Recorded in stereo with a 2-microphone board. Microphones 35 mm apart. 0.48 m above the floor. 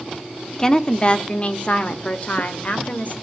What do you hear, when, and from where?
0.6 s a woman speaking: 20° left (ahead or behind), 1.1 m; by 3.1 s 50° left (ahead or behind), 2 m